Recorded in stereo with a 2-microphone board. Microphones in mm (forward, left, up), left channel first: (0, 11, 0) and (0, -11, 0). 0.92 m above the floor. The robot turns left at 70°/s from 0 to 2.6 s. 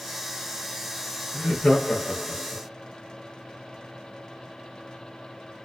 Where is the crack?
No crack in this recording.